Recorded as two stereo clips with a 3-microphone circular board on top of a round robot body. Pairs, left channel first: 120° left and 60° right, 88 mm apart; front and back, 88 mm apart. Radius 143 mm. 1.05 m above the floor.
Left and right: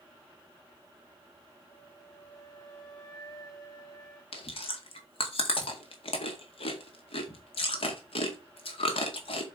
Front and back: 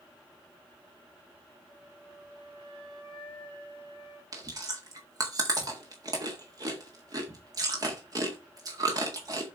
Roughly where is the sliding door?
I don't hear a sliding door.